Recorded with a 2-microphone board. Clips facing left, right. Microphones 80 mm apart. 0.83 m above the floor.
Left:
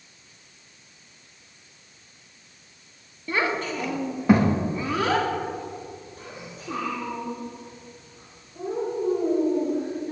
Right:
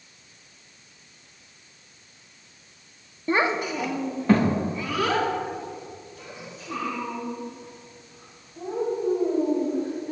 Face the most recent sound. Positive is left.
turn(degrees=55)  # may be behind; listen again after turning